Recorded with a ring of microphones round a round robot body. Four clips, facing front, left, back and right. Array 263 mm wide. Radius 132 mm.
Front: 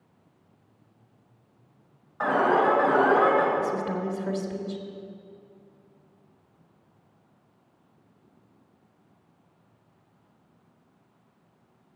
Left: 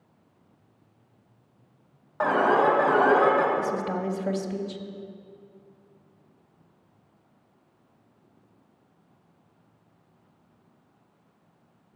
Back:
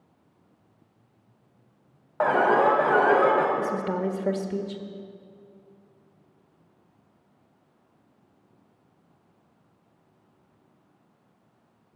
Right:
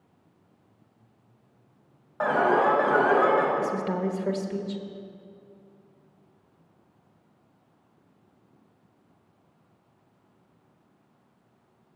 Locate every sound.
2.2 s an alarm: 170° left, 2.5 m
3.6 s a woman speaking: 170° right, 1.2 m